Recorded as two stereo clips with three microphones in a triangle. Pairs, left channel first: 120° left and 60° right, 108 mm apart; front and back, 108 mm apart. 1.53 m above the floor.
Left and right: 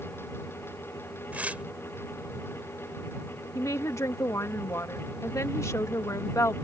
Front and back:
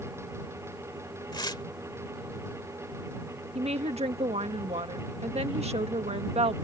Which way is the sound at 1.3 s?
10° left.